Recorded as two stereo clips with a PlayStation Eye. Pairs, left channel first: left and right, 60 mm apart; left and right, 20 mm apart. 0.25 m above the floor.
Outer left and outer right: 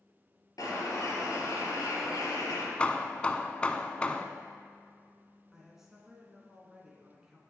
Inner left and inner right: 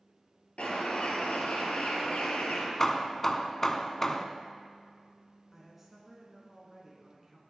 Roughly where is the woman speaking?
Centre.